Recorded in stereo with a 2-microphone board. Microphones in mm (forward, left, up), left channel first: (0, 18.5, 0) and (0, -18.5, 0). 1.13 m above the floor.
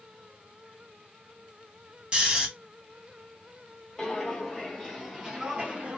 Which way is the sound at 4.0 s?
15° left (ahead or behind).